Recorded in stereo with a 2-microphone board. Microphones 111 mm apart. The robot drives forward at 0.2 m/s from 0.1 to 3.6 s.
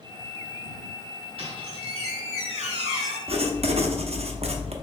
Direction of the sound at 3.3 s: 60° right (ahead or behind).